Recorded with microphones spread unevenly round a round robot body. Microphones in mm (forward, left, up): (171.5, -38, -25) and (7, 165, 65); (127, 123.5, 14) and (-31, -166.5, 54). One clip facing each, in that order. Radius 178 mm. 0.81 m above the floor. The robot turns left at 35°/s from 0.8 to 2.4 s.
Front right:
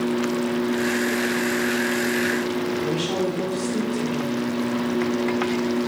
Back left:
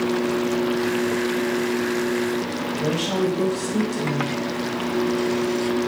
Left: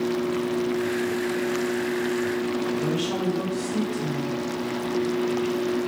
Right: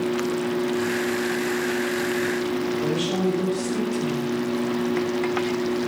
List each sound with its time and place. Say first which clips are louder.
2.8 s a woman speaking: back left 1 dB, right 2 dB; 155° left, 3.5 m